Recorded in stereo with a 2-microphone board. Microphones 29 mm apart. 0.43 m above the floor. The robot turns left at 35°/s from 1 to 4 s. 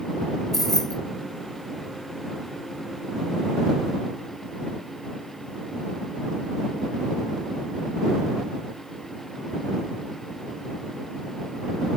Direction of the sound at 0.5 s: 10° left (ahead or behind).